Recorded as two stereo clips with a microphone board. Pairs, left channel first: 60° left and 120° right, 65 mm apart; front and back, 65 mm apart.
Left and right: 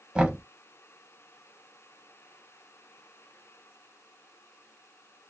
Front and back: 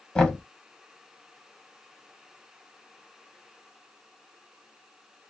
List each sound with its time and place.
0.1 s knocking: 65° right, 1.0 m